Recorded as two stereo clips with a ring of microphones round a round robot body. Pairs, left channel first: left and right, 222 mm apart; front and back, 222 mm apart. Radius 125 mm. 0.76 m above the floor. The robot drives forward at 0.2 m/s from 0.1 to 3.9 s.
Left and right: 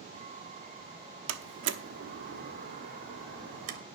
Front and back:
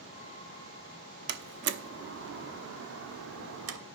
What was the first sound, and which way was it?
A door slam, 130° right.